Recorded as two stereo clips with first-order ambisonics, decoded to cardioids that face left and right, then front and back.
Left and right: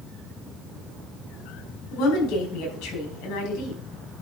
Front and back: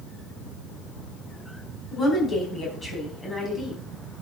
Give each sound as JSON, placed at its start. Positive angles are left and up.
{"t": 1.9, "sound": "a woman speaking", "azimuth_deg": 75, "distance_m": 4.5}